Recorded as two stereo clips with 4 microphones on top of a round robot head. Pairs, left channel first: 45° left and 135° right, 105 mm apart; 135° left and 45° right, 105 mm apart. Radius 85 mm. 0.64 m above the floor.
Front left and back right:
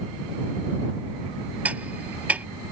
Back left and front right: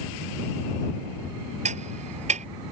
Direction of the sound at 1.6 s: 55° right.